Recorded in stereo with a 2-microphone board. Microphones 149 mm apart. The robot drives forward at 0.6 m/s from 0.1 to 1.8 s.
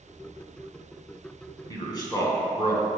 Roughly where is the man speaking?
Left.